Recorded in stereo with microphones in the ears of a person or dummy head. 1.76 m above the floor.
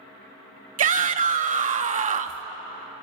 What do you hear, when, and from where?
0.8 s a shout: 40° right (ahead or behind), 0.5 m